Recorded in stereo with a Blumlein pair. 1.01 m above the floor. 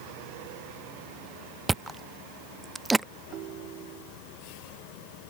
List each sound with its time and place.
1.7 s chewing: 10° right
3.3 s a ringtone: 35° right